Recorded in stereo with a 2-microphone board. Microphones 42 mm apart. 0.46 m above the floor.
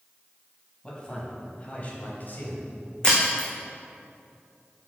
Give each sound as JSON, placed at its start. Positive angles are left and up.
{"t": 0.8, "sound": "a man speaking", "side_deg": 20, "distance_m": 3.5}
{"t": 3.0, "sound": "breaking glass", "side_deg": 15, "distance_m": 2.5}